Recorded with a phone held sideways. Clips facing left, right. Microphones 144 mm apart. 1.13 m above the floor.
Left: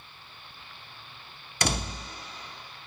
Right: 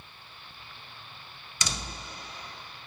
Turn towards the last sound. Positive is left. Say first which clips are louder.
# left 7 dB
turn(degrees=60)  # may be behind; listen again after turning